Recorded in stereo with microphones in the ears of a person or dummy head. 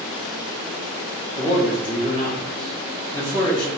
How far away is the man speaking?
About 2 m.